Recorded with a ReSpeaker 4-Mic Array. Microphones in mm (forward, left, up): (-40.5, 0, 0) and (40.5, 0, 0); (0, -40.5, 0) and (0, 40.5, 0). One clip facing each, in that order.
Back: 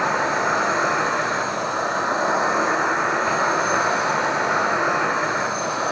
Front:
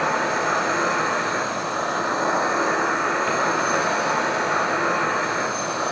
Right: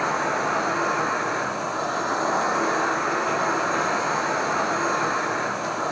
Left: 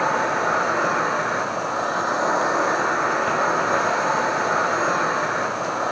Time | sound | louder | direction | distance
0.0 | an insect | back 1 dB, left 3 dB | 110° left | 1.6 m